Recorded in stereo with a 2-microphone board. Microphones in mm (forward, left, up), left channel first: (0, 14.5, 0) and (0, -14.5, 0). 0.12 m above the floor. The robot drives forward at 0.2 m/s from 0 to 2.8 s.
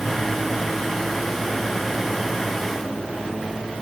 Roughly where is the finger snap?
I don't hear a finger snap.